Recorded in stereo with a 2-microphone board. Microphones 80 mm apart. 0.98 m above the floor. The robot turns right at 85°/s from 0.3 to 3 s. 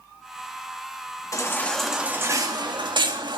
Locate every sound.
1.3 s a baby crying: 135° left, 1.5 m; by 3.4 s 80° right, 1.5 m